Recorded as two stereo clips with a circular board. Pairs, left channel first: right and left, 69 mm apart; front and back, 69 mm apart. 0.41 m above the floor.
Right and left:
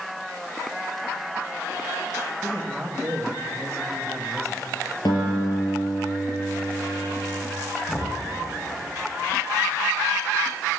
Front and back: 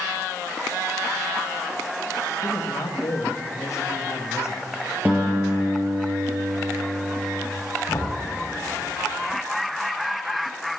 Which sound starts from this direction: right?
A guitar, at 5.0 s.